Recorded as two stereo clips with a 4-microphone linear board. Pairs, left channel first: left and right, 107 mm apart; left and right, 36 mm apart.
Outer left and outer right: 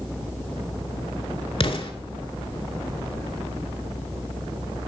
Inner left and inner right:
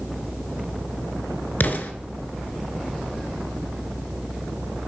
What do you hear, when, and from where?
1.6 s an explosion: 65° left (ahead or behind), 0.6 m